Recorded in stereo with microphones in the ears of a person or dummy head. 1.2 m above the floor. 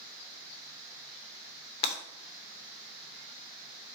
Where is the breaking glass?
30° left (ahead or behind), 2.5 m.